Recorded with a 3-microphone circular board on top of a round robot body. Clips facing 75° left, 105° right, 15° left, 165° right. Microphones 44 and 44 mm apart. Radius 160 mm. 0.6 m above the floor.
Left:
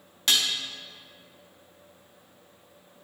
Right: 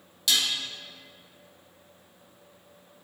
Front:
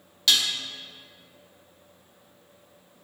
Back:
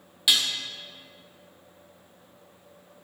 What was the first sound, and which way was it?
Dishes clattering, 120° left.